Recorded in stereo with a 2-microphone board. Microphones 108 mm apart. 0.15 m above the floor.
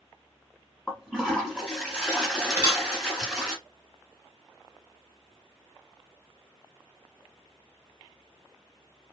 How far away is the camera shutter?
About 1.8 m.